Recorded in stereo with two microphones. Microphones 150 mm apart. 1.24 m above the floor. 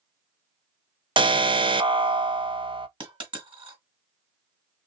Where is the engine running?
I don't hear an engine running.